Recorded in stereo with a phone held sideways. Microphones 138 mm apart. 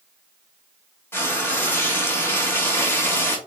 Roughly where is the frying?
Centre.